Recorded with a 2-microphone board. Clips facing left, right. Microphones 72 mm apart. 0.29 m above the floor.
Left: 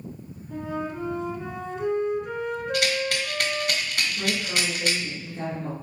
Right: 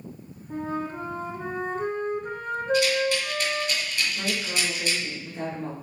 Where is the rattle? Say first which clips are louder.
Right 4 dB; 60° left (ahead or behind), 2 m.